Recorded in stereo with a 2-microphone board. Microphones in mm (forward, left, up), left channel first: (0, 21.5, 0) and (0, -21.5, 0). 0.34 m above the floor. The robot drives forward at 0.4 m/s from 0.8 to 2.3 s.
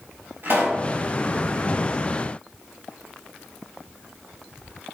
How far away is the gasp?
I don't hear a gasp.